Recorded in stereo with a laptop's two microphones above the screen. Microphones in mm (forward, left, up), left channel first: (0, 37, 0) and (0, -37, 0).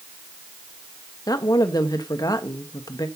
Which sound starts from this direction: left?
A woman speaking, at 1.3 s.